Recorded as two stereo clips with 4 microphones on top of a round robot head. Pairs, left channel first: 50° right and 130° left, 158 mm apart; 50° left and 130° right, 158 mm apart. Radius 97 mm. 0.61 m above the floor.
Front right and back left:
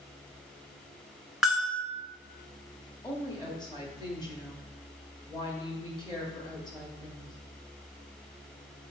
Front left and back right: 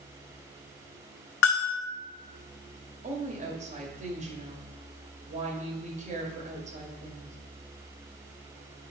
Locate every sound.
1.4 s a bell: 40° left, 0.8 m
3.0 s a woman speaking: 105° right, 1.7 m